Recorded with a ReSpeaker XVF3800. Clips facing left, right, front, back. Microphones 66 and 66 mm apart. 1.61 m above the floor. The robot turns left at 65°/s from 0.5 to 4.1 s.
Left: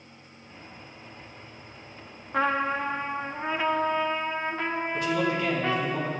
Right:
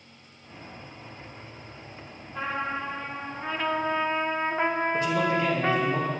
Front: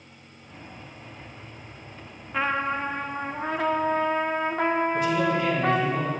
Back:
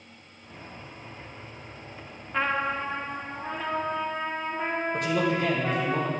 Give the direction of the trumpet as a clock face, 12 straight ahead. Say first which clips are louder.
Left 5 dB, front 1 dB; 9 o'clock.